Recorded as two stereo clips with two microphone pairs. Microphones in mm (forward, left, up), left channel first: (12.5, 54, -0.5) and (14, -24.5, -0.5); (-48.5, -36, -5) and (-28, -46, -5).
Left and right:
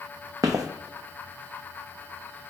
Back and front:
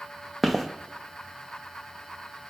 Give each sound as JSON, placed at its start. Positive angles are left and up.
{"t": 0.4, "sound": "footsteps", "azimuth_deg": -125, "distance_m": 0.6}